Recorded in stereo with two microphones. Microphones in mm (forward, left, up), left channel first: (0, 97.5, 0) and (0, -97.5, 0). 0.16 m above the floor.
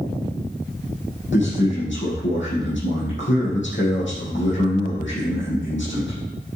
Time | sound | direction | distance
1.3 | a man speaking | 75° left (ahead or behind) | 5.5 m